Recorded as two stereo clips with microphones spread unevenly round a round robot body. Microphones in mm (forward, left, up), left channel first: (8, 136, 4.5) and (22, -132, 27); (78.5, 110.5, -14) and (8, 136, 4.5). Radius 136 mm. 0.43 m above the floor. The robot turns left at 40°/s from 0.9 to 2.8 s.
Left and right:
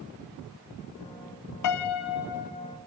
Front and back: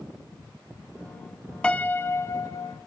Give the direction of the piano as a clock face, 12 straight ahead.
10 o'clock.